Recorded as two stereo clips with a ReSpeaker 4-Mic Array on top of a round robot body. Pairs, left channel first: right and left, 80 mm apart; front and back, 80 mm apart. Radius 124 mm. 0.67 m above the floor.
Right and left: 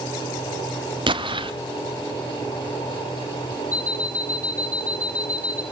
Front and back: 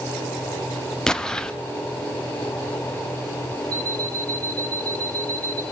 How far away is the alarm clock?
About 3 m.